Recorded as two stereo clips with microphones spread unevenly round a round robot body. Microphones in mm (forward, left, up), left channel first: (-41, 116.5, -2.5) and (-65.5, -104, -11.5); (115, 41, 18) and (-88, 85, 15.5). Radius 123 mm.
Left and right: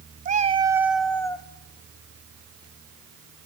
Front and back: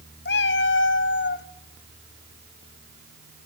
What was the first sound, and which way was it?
A cat meowing, 45° right.